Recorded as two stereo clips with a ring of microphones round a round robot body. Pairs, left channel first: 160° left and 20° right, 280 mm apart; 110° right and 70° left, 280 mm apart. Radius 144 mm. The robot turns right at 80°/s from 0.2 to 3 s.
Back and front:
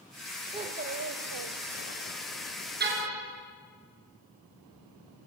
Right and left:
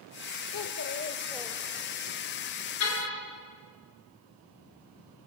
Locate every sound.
0.5 s a child speaking: 95° right, 1.2 m; by 2.1 s 30° left, 1.2 m
2.8 s a car horn: 80° right, 4 m; by 3.2 s 65° right, 4 m